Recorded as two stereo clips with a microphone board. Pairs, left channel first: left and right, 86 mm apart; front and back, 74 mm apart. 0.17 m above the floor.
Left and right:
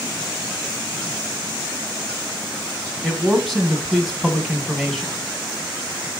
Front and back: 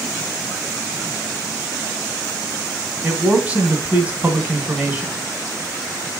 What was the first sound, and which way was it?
A man speaking, 170° left.